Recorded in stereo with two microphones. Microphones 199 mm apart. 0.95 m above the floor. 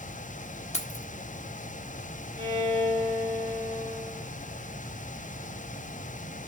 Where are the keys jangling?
35° left (ahead or behind), 1.2 m.